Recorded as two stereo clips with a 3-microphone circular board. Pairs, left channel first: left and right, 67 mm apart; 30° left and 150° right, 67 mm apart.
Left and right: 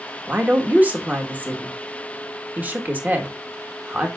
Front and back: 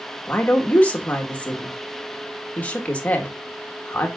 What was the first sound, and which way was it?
A woman speaking, 35° right.